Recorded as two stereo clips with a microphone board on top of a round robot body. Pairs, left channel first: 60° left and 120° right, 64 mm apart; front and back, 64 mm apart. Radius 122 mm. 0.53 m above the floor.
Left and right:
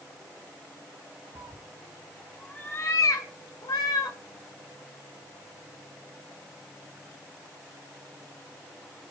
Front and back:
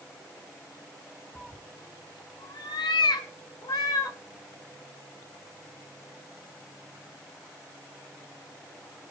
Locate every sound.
1.4 s a cat meowing: 85° right, 0.7 m; by 4.2 s 35° left, 1.2 m